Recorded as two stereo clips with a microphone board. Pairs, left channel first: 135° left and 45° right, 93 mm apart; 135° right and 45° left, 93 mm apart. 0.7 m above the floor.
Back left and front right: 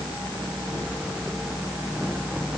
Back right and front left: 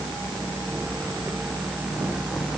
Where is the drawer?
I don't hear a drawer.